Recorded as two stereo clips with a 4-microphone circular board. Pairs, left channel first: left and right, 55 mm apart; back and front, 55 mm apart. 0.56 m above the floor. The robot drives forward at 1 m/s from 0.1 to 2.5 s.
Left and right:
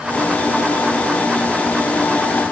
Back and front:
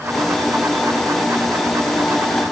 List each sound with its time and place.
Only background noise.